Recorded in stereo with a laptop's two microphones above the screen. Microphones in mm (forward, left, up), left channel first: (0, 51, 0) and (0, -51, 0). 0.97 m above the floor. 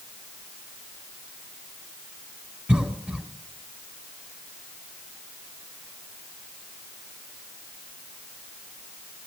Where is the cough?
15° right (ahead or behind), 3.5 m.